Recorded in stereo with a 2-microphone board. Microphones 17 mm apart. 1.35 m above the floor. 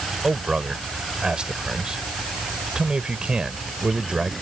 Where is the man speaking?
45° right (ahead or behind).